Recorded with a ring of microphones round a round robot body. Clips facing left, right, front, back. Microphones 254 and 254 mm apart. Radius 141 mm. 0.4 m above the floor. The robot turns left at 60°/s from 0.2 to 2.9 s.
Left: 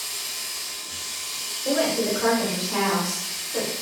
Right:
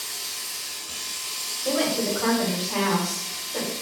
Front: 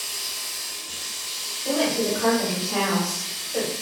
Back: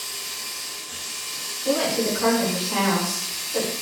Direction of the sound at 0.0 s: 15° right.